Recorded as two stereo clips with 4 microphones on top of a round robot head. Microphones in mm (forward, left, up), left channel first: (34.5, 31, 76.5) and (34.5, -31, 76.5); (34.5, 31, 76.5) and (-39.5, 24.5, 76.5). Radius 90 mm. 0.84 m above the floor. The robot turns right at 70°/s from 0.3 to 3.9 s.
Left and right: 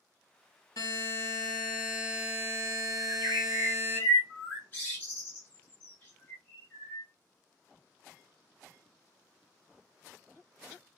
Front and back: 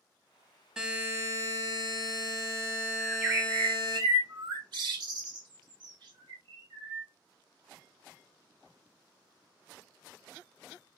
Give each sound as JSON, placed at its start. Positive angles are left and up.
{"t": 0.8, "sound": "a buzzer", "azimuth_deg": 105, "distance_m": 1.4}
{"t": 3.0, "sound": "a bird", "azimuth_deg": 100, "distance_m": 0.8}